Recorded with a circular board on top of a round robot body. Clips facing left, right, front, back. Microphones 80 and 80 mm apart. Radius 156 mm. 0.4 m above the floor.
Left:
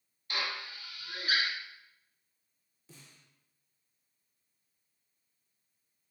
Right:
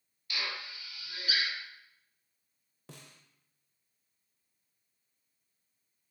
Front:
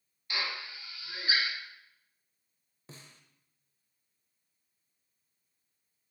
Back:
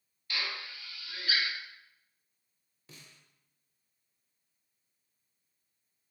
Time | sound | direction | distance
0.3 | a drill | 60° left | 1.2 m
2.9 | a snare drum | 60° right | 0.6 m